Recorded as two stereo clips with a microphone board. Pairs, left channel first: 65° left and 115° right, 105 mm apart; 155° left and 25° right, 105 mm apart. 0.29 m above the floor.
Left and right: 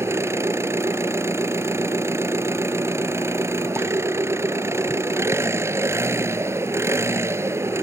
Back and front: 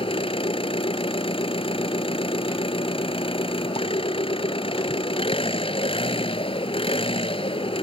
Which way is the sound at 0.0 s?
175° right.